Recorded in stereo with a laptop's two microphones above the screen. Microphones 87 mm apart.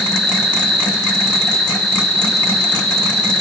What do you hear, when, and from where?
0.0 s an insect: 10° left (ahead or behind), 5 m